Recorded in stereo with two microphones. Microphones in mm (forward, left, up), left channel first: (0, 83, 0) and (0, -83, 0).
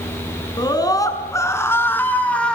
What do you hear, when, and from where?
0.6 s a scream: 25° left (ahead or behind), 5.5 m; by 2.5 s 5° left (ahead or behind), 5.5 m